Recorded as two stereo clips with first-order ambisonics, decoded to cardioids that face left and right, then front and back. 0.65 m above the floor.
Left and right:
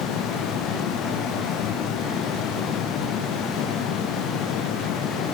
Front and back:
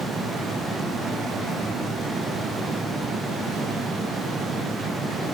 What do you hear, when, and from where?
Only background noise.